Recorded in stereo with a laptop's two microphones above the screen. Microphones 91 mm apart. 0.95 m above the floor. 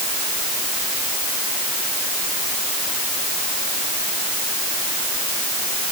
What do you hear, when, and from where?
Only background noise.